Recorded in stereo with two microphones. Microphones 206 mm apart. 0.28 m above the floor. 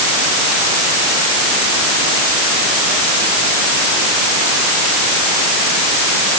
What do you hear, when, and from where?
Only background noise.